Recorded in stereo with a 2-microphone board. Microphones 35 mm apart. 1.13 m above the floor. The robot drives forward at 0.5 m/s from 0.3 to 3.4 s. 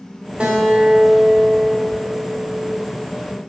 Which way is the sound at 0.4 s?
35° right (ahead or behind).